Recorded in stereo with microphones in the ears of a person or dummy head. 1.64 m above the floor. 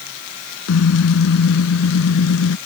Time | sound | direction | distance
0.7 | a car horn | 80° left | ?